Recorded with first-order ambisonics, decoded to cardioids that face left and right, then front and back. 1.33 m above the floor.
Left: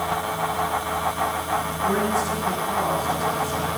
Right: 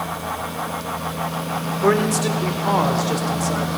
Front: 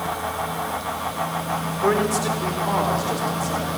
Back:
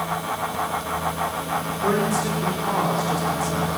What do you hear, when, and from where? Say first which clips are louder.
1.8 s a man speaking: right 6 dB, front 3 dB; 70° right, 4 m; by 3.7 s 95° right, 4.5 m